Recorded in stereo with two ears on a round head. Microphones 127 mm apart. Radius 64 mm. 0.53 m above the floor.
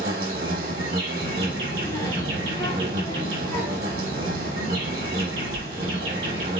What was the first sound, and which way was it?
An insect, 70° right (ahead or behind).